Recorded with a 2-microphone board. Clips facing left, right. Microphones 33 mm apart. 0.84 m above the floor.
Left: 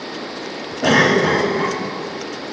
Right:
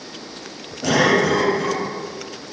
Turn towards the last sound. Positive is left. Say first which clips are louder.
# left 2 dB
turn(degrees=40)  # may be behind; listen again after turning